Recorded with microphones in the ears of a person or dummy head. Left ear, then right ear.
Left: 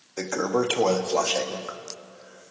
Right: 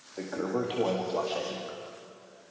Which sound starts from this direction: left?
A toilet flushing, at 0.2 s.